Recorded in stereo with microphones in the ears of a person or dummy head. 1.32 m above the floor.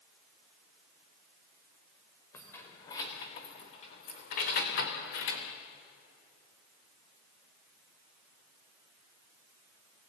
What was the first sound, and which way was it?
Keys jangling, 10° left (ahead or behind).